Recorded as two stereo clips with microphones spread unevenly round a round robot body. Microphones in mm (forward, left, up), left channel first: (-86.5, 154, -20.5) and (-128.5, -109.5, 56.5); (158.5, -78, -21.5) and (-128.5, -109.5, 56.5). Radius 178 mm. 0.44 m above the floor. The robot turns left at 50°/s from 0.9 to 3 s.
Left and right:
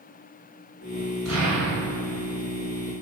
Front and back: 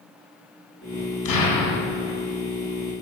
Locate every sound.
1.2 s an explosion: 15° right, 0.7 m; by 2.2 s 60° right, 0.7 m